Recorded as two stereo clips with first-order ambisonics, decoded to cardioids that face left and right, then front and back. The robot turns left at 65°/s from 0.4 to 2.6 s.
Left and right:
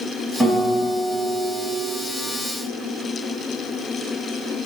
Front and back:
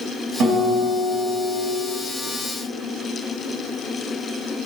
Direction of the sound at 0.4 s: 175° right.